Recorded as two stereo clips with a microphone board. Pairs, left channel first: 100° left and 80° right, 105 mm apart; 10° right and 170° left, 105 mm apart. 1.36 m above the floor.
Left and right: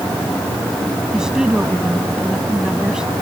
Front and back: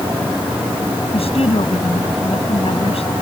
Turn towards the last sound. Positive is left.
turn(degrees=5)